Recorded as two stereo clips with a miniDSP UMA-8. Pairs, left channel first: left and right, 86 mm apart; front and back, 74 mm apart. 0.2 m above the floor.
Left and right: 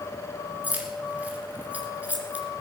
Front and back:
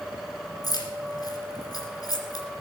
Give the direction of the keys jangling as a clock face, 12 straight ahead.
1 o'clock.